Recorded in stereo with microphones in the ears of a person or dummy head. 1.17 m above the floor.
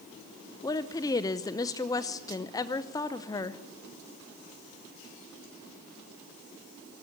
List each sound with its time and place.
0.6 s a woman speaking: 20° left (ahead or behind), 0.7 m